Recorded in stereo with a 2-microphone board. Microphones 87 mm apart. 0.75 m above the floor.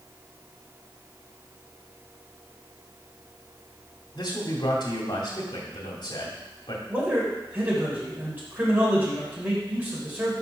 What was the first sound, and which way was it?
A man speaking, 55° left (ahead or behind).